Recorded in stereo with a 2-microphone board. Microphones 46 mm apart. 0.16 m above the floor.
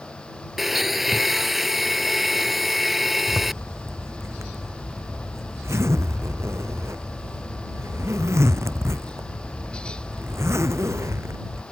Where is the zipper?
70° right (ahead or behind).